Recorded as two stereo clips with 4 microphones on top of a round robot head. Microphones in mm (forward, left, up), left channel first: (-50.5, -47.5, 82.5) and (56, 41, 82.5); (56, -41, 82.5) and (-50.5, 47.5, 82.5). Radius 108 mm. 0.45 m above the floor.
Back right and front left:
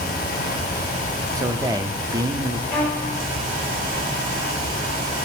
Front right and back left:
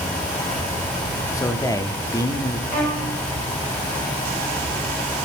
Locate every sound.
1.3 s a man speaking: straight ahead, 0.8 m
2.7 s a violin: 55° right, 3.5 m